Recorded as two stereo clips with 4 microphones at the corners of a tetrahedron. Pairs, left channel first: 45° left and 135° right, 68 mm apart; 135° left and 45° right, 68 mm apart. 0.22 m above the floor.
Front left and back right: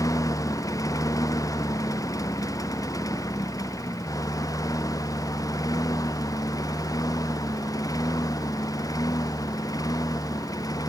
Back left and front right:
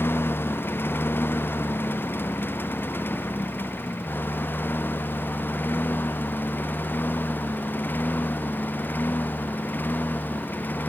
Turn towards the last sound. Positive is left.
turn(degrees=70)